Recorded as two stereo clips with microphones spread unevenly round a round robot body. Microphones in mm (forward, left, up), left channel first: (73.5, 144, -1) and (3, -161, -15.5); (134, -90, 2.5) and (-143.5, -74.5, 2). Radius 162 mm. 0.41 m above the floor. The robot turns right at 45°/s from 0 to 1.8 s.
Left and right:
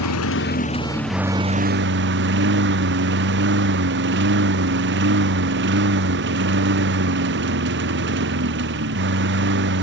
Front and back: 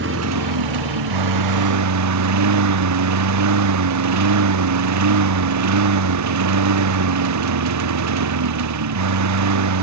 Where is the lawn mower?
115° left; by 9.8 s 160° right.